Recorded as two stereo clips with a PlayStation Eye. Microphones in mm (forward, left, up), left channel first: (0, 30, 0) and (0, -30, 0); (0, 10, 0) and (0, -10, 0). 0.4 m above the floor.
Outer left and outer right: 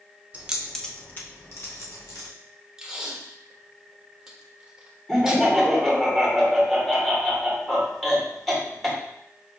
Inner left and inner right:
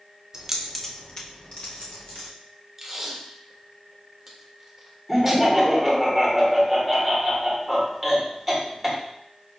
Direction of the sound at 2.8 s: 15° right (ahead or behind).